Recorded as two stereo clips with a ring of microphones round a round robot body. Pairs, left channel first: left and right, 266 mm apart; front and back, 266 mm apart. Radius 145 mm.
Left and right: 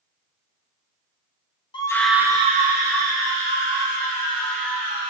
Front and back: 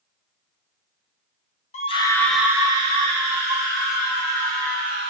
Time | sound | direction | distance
1.7 | a scream | 35° left | 0.7 m